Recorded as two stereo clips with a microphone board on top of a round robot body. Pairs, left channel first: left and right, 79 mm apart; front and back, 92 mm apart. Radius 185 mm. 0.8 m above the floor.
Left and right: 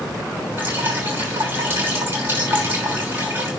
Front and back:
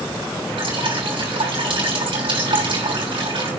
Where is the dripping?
155° right, 5.5 m.